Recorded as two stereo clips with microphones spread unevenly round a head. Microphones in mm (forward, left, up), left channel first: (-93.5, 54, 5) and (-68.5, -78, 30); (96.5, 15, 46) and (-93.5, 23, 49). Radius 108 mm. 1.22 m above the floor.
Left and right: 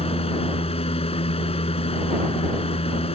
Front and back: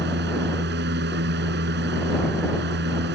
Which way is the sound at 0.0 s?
145° left.